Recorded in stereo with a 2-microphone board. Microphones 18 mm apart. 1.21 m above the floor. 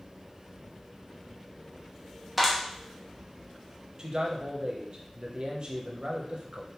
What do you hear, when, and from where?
2.4 s a clap: centre (ahead or behind), 1.0 m
4.0 s a man speaking: 45° right (ahead or behind), 0.7 m